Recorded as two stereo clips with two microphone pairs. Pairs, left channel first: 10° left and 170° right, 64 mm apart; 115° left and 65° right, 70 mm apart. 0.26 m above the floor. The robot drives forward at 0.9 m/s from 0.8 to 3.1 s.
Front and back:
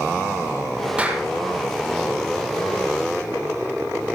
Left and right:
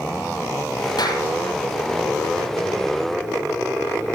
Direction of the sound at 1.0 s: 120° left.